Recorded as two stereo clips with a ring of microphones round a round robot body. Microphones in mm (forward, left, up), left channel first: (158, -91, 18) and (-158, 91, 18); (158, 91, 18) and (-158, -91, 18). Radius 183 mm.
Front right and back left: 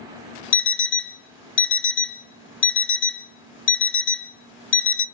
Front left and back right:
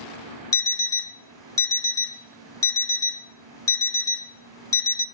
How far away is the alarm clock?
About 0.6 m.